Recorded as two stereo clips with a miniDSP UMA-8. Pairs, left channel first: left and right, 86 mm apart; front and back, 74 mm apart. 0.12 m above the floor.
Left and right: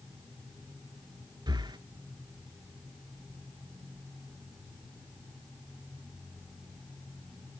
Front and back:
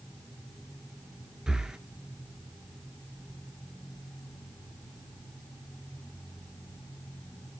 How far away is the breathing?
About 0.7 m.